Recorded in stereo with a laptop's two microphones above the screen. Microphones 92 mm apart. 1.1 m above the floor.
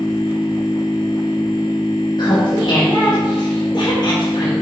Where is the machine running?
55° left (ahead or behind), 1.6 m.